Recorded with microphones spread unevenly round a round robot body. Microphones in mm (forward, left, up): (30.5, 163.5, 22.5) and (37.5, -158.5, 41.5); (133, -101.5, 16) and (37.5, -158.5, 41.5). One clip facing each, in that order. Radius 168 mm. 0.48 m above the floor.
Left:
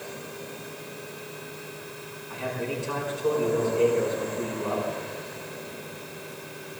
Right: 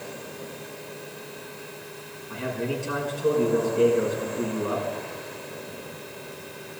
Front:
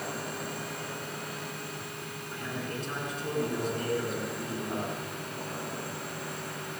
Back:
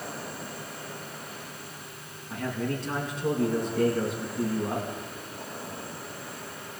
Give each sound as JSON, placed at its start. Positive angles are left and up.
{"t": 2.3, "sound": "a man speaking", "azimuth_deg": -160, "distance_m": 6.5}